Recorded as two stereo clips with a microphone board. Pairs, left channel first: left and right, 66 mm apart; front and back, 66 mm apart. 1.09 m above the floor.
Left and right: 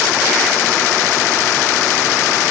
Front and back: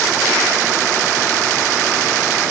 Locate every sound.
Only background noise.